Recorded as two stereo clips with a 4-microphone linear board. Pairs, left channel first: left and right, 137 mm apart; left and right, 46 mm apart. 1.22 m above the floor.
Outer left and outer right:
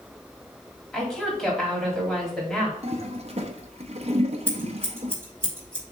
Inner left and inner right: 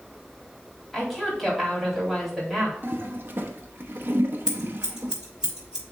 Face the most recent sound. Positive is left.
turn(degrees=-15)  # may be behind; listen again after turning